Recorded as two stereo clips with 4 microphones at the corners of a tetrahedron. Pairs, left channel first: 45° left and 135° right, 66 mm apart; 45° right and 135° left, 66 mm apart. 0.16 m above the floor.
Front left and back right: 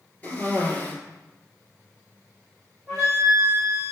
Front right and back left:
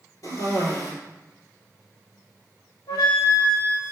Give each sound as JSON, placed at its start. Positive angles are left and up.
{"t": 0.2, "sound": "a cough", "azimuth_deg": -20, "distance_m": 2.5}
{"t": 2.9, "sound": "a flute", "azimuth_deg": -50, "distance_m": 3.0}